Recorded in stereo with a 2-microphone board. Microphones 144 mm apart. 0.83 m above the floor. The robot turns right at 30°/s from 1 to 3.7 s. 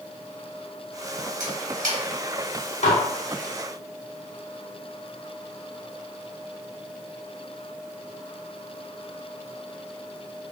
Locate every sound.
1.4 s a camera shutter: 70° right (ahead or behind), 1.0 m; by 2.0 s 75° right (ahead or behind), 1.0 m
2.8 s dishes clattering: 60° left (ahead or behind), 0.8 m; by 3.0 s 55° left (ahead or behind), 0.8 m